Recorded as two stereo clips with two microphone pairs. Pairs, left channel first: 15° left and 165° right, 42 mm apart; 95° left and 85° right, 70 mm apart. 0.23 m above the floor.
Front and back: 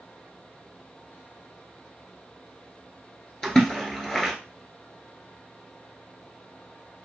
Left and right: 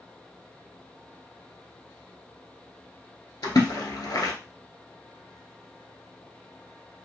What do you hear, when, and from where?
3.4 s a splash: 95° left, 0.8 m